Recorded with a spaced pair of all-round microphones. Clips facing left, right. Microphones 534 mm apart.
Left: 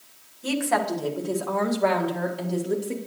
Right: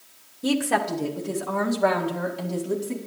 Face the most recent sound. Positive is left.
turn(degrees=-25)  # may be behind; listen again after turning